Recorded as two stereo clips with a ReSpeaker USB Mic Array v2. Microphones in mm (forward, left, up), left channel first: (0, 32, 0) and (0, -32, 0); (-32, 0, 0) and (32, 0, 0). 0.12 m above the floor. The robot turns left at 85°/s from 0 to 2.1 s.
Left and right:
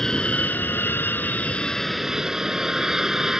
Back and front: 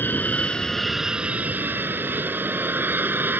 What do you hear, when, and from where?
0.0 s an aircraft: 165° left; by 3.4 s 15° right